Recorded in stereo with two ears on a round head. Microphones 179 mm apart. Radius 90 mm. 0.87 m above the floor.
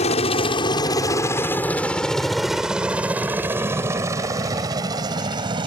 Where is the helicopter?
35° left (ahead or behind); by 5.7 s 25° right (ahead or behind).